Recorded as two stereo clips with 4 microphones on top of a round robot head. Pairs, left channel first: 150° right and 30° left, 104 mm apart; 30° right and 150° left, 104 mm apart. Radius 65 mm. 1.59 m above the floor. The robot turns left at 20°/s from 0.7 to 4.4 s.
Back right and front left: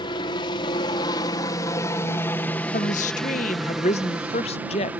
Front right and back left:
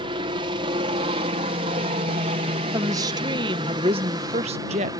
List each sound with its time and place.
0.0 s a helicopter: 175° left; by 5.0 s 105° left
2.7 s a woman speaking: 150° right; by 4.9 s straight behind